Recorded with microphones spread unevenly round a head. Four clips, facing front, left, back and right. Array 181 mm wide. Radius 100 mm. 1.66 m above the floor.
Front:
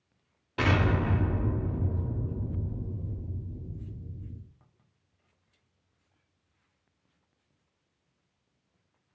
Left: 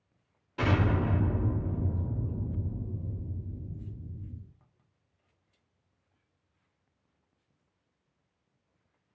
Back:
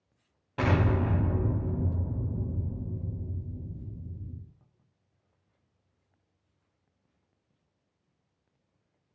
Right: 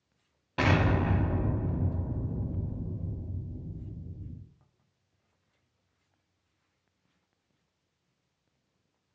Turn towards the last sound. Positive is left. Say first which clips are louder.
# right 2 dB, even
turn(degrees=-120)